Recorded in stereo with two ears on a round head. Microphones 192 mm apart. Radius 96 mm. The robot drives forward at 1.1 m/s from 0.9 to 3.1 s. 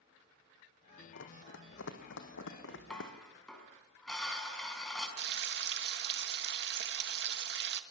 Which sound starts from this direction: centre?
Dishes clattering, at 2.9 s.